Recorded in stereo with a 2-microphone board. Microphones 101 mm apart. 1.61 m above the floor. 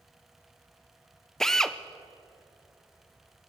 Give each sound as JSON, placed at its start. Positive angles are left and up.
{"t": 1.4, "sound": "a drill", "side_deg": 5, "distance_m": 0.7}